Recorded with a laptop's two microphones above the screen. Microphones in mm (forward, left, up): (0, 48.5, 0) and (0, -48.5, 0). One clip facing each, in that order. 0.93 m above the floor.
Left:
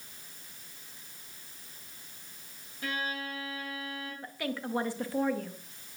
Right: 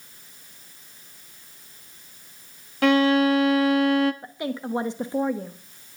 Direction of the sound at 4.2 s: 20° right (ahead or behind).